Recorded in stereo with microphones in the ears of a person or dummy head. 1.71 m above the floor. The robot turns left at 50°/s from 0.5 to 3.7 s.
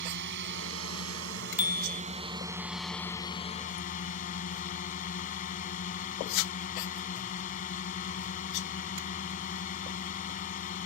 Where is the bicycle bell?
10° right (ahead or behind); by 2.0 s 30° right (ahead or behind).